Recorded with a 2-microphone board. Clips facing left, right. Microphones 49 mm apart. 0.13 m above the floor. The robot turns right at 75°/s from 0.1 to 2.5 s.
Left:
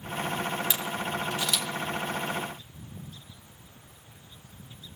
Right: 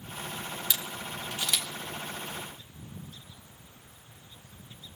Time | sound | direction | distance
0.7 | a camera shutter | 20° left (ahead or behind) | 2 m